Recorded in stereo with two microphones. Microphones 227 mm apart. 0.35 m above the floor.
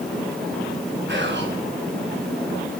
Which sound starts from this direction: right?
Whispering, at 1.1 s.